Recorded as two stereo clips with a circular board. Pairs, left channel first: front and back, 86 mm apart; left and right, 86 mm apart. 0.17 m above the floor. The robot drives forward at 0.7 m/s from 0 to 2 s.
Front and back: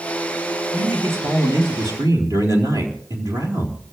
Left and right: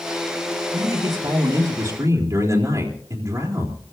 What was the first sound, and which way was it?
A man speaking, 125° right.